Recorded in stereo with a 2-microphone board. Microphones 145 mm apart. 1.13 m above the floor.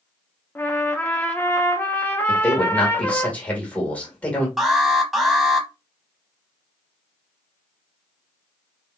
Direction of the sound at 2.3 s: 10° left (ahead or behind).